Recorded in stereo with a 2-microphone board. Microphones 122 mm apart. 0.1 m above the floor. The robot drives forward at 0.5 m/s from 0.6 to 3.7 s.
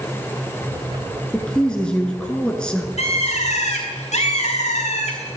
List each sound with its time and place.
1.3 s a woman speaking: 5° left (ahead or behind), 1.1 m
3.0 s a bird: 65° left (ahead or behind), 2 m; by 5.4 s 70° left (ahead or behind), 2 m